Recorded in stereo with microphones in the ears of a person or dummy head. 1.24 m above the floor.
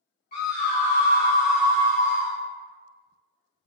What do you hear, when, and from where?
0.3 s a scream: 45° left (ahead or behind), 0.9 m; by 2.4 s 35° right (ahead or behind), 0.7 m